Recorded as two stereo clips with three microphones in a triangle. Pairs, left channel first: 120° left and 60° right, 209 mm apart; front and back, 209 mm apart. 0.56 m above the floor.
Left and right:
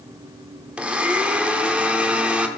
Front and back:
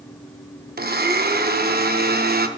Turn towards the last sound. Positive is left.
turn(degrees=-145)